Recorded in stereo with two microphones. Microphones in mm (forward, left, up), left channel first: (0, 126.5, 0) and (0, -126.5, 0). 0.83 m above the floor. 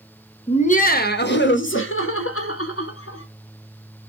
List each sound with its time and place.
0.5 s laughter: 25° left (ahead or behind), 0.9 m; by 3.2 s 65° left (ahead or behind), 2 m